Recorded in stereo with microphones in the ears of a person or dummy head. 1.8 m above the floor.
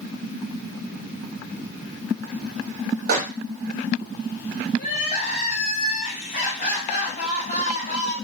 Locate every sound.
3.1 s a microwave: 50° right (ahead or behind), 1.0 m
4.8 s crying: 35° left (ahead or behind), 1.3 m